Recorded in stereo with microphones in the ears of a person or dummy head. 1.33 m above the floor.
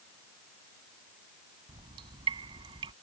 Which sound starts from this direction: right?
Dripping, at 1.7 s.